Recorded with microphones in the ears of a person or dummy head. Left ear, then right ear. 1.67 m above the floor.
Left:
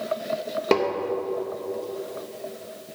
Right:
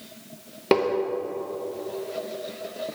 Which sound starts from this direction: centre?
Tapping, at 0.7 s.